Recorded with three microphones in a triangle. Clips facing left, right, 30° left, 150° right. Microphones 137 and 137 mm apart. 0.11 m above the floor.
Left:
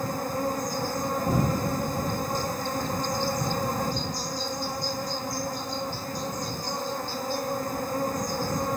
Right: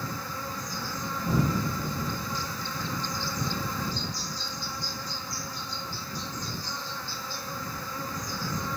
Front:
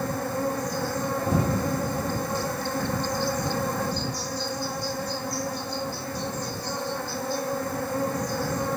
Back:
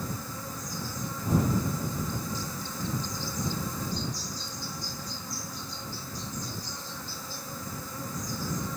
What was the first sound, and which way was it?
An insect, 50° left.